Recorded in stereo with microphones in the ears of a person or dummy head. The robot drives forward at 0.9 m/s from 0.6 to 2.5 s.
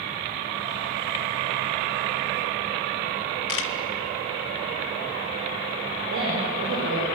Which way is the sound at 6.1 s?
65° right (ahead or behind).